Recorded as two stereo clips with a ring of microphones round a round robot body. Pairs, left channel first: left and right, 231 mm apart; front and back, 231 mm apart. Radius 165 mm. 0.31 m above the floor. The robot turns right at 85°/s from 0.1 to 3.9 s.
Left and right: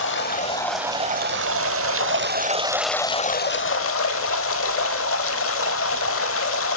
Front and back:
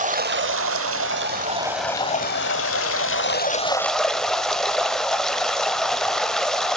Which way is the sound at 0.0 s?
125° left.